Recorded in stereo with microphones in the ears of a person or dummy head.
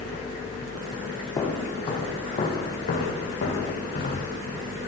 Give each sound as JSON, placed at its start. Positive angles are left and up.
{"t": 1.4, "sound": "footsteps", "side_deg": 20, "distance_m": 2.5}